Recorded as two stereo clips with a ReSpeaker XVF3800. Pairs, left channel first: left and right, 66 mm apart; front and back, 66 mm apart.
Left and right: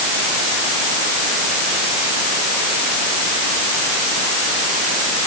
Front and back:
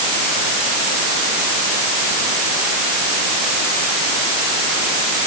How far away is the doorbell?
No doorbell in this recording.